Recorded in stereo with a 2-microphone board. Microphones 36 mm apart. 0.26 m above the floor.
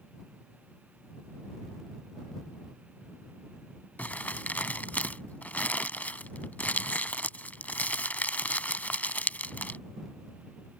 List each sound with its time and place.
4.0 s crumpling: 55° left (ahead or behind)